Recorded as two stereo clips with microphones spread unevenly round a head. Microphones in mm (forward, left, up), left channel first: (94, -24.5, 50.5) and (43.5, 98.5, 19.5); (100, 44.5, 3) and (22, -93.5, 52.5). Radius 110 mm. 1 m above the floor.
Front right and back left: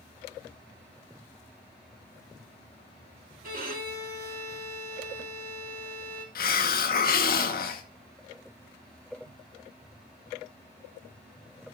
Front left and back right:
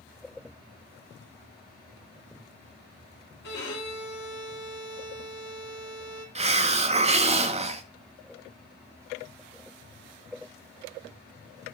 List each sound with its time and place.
3.4 s a violin: 95° left, 2 m
6.3 s a hiss: 60° right, 0.8 m